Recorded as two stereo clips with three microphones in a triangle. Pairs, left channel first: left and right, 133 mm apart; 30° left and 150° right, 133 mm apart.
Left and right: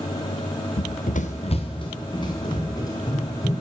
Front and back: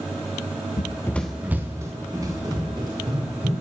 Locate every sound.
0.8 s running footsteps: 60° left, 0.6 m; by 3.5 s 155° left, 4 m